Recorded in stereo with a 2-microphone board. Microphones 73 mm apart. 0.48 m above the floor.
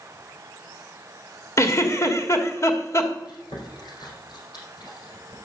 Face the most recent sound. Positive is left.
turn(degrees=70)  # may be behind; listen again after turning